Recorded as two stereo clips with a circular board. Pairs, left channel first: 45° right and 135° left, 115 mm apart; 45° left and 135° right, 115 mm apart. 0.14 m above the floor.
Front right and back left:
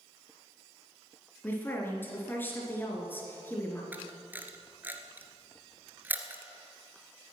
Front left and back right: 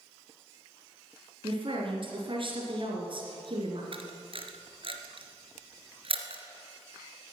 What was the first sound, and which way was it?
A woman speaking, 115° right.